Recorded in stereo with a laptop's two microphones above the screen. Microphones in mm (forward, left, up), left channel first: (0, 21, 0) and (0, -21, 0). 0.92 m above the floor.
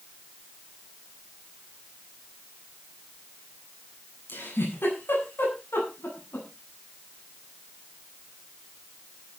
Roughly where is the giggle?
Left.